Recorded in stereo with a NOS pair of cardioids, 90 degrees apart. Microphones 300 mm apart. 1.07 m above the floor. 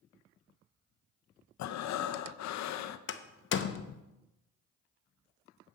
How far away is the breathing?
About 0.6 m.